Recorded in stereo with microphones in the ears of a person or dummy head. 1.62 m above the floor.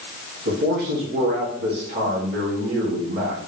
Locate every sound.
0.5 s a man speaking: 65° right (ahead or behind), 1.7 m